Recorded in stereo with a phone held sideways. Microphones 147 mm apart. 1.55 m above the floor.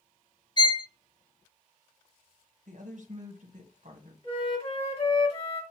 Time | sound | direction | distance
0.6 | a violin | 30° left (ahead or behind) | 0.5 m
2.7 | a woman speaking | 60° right (ahead or behind) | 1.4 m
4.2 | a flute | 40° left (ahead or behind) | 1.8 m